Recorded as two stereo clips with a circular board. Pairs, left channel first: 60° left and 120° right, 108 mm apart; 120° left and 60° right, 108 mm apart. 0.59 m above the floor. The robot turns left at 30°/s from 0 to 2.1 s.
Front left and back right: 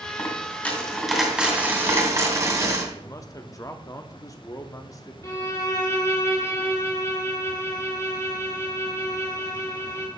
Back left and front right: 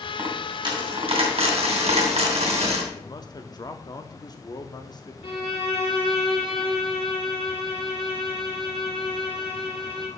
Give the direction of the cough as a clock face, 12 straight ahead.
I don't hear a cough.